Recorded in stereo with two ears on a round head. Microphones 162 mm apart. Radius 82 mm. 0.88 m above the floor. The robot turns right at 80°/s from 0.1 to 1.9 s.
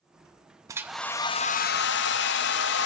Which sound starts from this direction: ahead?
A hair dryer, at 0.7 s.